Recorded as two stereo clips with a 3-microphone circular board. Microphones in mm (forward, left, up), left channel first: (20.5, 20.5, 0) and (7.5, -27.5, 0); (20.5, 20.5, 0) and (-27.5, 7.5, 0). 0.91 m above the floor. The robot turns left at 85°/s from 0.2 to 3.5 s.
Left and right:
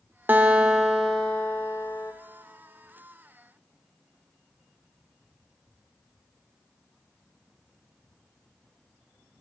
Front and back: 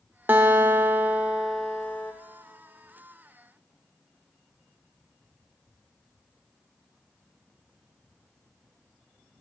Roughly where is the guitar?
Behind right.